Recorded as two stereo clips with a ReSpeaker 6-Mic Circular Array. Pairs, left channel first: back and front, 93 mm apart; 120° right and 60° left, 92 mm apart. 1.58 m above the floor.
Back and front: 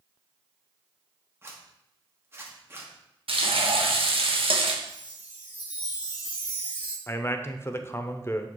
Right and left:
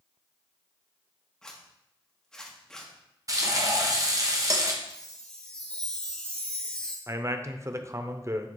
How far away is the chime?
About 1.3 m.